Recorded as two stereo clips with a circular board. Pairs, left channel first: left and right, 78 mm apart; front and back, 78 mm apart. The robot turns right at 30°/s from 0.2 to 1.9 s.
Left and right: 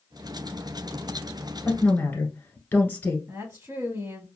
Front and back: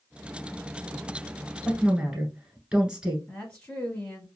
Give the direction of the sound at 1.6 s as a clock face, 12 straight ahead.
8 o'clock.